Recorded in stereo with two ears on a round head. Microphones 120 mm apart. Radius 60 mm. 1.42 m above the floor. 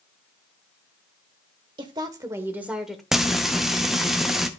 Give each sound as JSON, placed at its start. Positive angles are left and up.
{"t": 1.8, "sound": "a woman speaking", "side_deg": -35, "distance_m": 1.1}
{"t": 3.1, "sound": "frying", "side_deg": 0, "distance_m": 0.6}